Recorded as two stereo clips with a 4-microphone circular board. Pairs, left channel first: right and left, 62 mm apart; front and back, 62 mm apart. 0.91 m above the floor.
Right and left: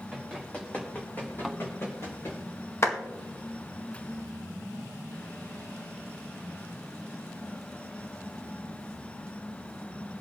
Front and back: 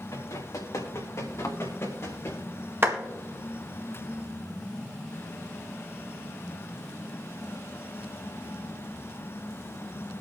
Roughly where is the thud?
Ahead.